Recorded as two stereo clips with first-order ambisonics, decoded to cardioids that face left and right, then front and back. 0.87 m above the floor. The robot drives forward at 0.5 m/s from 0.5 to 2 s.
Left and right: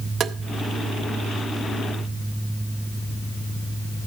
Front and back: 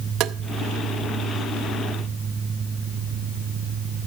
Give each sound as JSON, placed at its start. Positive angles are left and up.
{"t": 0.2, "sound": "tapping", "azimuth_deg": -145, "distance_m": 0.5}